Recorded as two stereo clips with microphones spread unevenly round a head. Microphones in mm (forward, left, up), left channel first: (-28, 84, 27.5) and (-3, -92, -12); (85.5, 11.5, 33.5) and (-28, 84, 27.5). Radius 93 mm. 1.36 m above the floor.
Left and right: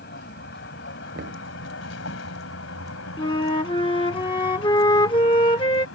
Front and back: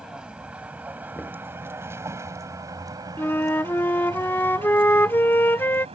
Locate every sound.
0.0 s a vehicle: 65° left; by 6.0 s 105° left
1.1 s knocking: 115° right
3.2 s a flute: 40° left